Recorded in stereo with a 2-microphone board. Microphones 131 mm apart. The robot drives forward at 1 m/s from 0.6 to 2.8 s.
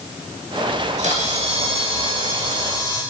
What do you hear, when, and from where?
0.7 s a camera shutter: 70° right (ahead or behind), 2 m; by 3.0 s 35° right (ahead or behind), 3.5 m